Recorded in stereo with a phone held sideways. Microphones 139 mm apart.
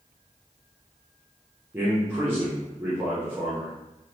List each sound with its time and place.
1.7 s a man speaking: 15° right (ahead or behind), 0.7 m